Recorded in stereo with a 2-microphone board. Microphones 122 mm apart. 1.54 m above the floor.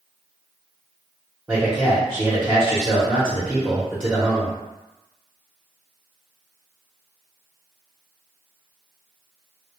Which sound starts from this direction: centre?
A man speaking, at 1.5 s.